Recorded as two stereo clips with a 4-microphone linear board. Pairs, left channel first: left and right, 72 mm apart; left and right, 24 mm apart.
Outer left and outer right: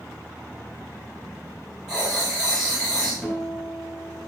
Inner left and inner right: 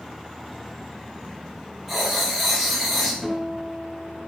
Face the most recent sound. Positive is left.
turn(degrees=0)  # may be behind; listen again after turning